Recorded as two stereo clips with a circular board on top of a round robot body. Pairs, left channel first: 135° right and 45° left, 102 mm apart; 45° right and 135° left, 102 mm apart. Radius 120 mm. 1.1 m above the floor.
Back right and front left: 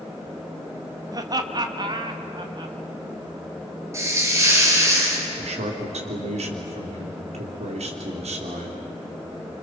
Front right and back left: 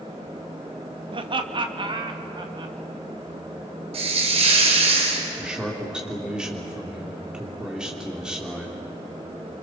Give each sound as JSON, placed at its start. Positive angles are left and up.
{"t": 1.1, "sound": "laughter", "azimuth_deg": 100, "distance_m": 1.6}
{"t": 3.9, "sound": "a hiss", "azimuth_deg": 110, "distance_m": 4.0}
{"t": 5.4, "sound": "a man speaking", "azimuth_deg": 50, "distance_m": 3.0}